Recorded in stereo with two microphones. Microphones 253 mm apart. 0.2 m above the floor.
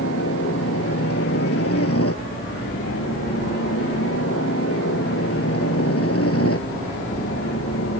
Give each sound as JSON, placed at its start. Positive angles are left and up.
{"t": 0.0, "sound": "a helicopter", "side_deg": 70}